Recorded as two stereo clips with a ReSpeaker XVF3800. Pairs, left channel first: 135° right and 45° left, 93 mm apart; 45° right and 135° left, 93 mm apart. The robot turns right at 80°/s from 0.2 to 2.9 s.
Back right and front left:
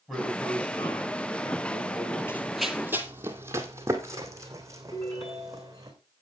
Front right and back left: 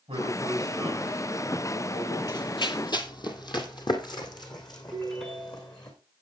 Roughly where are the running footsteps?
Right.